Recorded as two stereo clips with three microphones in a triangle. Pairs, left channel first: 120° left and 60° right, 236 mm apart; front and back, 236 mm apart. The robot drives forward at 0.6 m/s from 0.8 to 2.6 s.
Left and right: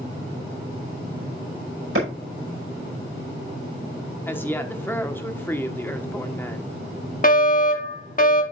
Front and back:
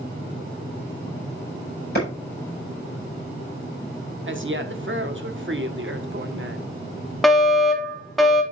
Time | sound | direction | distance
1.9 | a clap | 40° right | 5 m
4.3 | a woman speaking | 160° right | 1.3 m
7.2 | a fire alarm | 90° left | 1.4 m